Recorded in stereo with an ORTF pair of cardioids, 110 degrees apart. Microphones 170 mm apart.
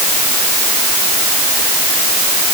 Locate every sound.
Only background noise.